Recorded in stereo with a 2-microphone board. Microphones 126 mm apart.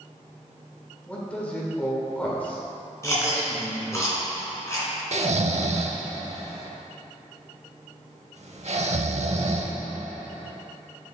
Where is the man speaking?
10° left (ahead or behind), 1.3 m.